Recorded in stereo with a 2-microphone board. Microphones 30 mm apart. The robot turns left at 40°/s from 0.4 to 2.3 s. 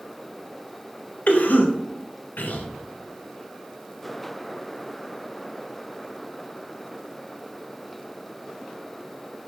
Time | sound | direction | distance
1.3 | a cough | 60° left (ahead or behind) | 0.6 m